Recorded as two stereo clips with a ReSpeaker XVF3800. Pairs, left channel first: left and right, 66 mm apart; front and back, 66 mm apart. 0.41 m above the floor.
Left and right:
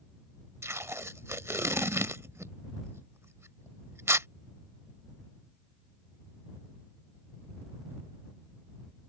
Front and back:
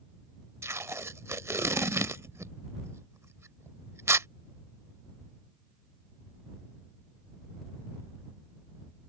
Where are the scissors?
I don't hear scissors.